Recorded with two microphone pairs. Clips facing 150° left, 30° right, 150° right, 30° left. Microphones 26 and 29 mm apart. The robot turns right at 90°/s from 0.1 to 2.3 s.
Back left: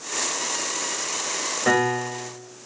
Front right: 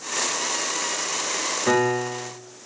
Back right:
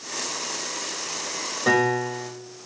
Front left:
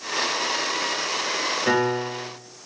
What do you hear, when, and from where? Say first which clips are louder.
1.7 s a piano: even, back right 4 dB; 150° left, 2.0 m; by 2.3 s 150° right, 2.0 m